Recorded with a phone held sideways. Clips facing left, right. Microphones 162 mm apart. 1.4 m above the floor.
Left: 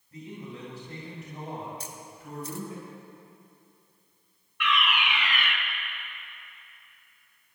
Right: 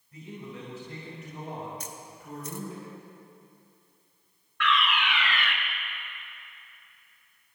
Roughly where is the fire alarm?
Centre.